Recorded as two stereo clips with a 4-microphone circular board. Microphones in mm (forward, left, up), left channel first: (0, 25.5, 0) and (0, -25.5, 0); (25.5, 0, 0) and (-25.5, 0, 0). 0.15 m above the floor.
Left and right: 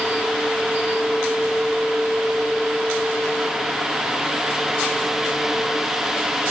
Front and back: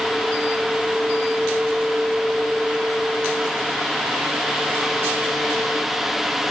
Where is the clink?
No clink in this recording.